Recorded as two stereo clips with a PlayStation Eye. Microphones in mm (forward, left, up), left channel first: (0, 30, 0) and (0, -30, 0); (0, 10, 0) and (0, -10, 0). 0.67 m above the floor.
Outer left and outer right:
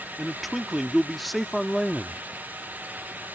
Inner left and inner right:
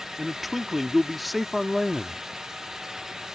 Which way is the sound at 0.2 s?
Centre (ahead or behind).